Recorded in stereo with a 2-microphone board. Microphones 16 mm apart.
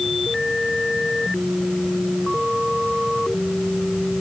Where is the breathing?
I don't hear breathing.